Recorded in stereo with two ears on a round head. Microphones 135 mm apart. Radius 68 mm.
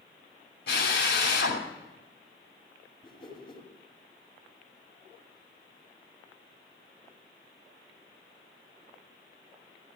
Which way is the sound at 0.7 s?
80° left.